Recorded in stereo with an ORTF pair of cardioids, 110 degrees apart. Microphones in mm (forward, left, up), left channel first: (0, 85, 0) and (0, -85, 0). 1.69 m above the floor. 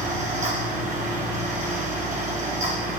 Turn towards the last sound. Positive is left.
turn(degrees=-45)